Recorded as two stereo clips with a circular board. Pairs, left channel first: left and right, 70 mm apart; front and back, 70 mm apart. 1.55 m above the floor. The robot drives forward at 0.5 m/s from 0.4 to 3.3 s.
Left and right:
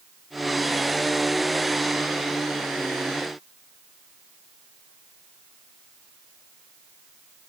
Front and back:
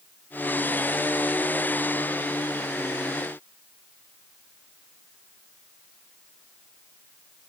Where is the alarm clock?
I don't hear an alarm clock.